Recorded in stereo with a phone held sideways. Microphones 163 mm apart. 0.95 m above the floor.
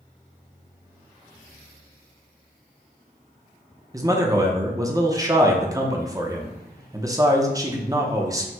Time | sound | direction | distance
3.9 | a man speaking | 20° right (ahead or behind) | 0.6 m